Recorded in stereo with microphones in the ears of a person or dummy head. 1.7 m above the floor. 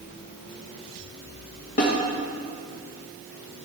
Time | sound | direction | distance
1.8 | a snare drum | 35° left (ahead or behind) | 1.8 m